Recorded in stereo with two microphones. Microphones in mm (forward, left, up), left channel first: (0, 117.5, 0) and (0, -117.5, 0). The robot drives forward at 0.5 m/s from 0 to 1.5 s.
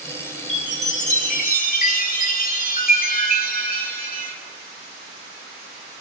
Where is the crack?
No crack in this recording.